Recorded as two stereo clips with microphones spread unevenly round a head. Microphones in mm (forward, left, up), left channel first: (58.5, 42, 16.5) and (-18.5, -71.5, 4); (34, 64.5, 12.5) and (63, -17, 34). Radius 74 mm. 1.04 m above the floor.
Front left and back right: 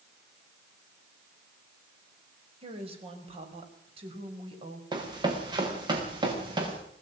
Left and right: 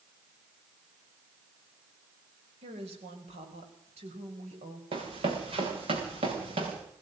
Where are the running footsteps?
65° right, 6.5 m.